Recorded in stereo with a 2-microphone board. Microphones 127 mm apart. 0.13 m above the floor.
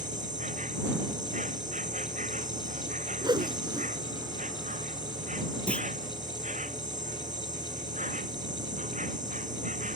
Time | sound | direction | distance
0.0 | an insect | 80° right | ?
3.2 | a whoosh | 35° right (ahead or behind) | ?
5.7 | a clunk | 10° left (ahead or behind) | ?